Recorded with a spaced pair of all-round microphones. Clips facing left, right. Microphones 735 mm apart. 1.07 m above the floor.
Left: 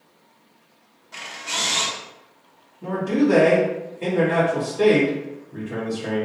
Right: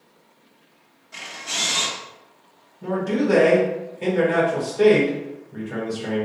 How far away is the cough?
No cough in this recording.